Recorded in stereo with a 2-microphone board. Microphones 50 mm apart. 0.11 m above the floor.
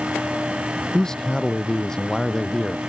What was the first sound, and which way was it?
A man speaking, 15° left (ahead or behind).